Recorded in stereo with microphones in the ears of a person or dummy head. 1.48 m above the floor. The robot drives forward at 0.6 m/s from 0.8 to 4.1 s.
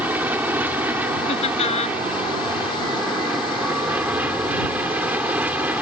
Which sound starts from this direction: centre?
An aircraft, at 0.0 s.